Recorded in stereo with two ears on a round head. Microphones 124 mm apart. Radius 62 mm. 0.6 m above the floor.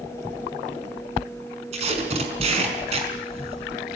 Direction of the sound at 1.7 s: 50° right (ahead or behind).